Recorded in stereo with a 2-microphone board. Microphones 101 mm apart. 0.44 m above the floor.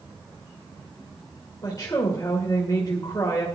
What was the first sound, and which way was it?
A woman speaking, 35° left (ahead or behind).